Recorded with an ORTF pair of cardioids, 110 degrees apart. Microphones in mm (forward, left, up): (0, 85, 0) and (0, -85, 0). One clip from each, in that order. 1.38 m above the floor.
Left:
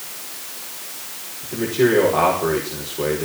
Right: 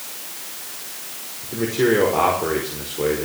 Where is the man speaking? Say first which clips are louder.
Left 1 dB; straight ahead, 6 m.